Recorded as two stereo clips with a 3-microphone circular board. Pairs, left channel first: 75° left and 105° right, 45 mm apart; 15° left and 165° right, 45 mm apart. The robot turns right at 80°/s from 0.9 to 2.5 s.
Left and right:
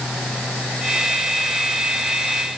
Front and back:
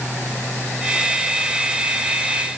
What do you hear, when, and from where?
Only background noise.